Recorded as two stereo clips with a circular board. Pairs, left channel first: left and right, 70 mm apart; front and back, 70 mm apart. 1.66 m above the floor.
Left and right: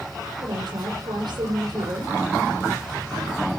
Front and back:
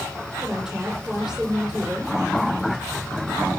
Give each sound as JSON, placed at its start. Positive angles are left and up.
{"t": 0.4, "sound": "a woman speaking", "azimuth_deg": -100, "distance_m": 8.5}